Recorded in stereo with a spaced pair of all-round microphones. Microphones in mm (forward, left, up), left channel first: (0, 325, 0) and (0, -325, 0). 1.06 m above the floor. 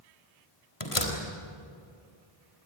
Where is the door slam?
45° left (ahead or behind), 3.5 m.